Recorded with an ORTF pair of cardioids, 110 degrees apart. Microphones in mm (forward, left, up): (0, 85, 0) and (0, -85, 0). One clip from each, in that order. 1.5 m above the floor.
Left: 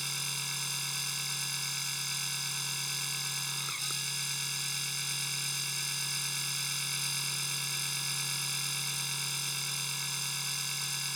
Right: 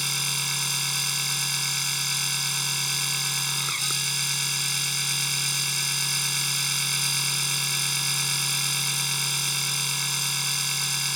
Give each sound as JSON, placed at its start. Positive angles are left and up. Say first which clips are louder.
{"t": 0.0, "sound": "a machine running", "louder": "right 9 dB", "azimuth_deg": -50}